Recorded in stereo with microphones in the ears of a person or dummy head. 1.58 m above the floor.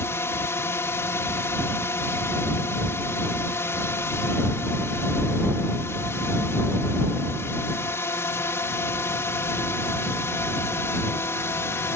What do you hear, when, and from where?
0.0 s a drone: 15° left (ahead or behind)